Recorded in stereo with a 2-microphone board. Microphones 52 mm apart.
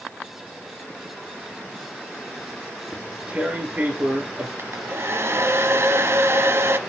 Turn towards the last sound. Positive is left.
turn(degrees=-55)  # may be behind; listen again after turning